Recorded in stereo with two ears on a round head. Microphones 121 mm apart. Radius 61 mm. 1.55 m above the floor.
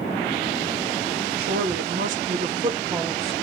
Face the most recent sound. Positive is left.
turn(degrees=5)  # may be behind; listen again after turning